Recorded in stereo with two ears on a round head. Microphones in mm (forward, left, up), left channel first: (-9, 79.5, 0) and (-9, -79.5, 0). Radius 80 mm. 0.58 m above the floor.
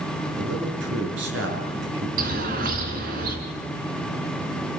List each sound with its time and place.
0.4 s a man speaking: 70° right (ahead or behind), 7.5 m
2.2 s a bird: 50° right (ahead or behind), 3.5 m